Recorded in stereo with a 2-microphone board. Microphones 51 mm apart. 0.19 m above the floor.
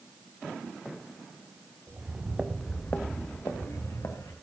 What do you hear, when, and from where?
1.9 s footsteps: 30° right (ahead or behind), 1.8 m; by 4.3 s 85° left, 2.5 m